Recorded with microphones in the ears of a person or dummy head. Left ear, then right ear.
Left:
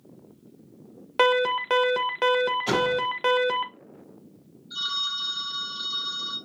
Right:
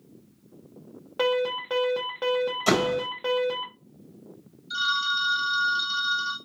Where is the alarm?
45° left (ahead or behind), 0.5 m.